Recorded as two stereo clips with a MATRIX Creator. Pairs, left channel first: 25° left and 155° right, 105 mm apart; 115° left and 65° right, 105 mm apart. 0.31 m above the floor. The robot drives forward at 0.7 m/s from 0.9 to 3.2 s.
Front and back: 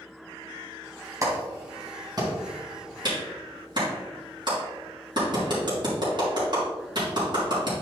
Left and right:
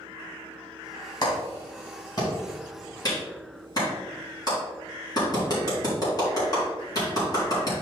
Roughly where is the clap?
Behind left.